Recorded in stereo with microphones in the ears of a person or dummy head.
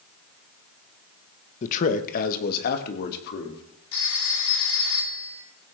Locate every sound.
1.6 s a man speaking: 40° left (ahead or behind), 1.8 m; by 3.6 s 60° left (ahead or behind), 4 m
3.9 s a phone ringing: 80° left, 9.5 m